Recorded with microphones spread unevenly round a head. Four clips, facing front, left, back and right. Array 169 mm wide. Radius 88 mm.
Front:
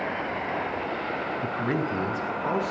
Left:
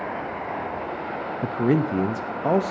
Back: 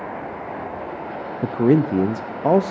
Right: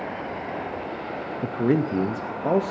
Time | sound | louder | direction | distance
1.4 | a man speaking | left 1 dB, back 14 dB | 175° right | 0.5 m